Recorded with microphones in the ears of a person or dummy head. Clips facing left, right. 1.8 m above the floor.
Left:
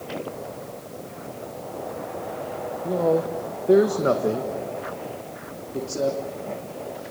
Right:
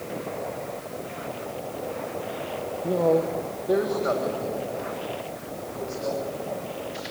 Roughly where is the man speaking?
Centre.